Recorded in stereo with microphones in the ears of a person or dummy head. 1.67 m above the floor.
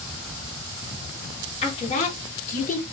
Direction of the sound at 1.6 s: 35° left (ahead or behind).